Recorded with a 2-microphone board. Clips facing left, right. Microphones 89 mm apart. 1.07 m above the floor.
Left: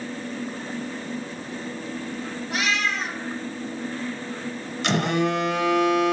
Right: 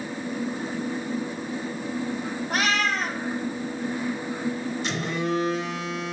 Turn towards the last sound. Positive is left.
turn(degrees=70)  # may be behind; listen again after turning